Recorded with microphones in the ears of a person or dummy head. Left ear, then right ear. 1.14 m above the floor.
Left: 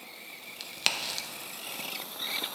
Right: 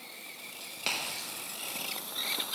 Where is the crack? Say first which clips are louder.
Left 4 dB; 30° left (ahead or behind), 0.6 m.